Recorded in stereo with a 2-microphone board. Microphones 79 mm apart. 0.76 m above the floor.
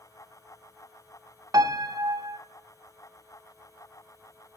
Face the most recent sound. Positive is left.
turn(degrees=-50)  # may be behind; listen again after turning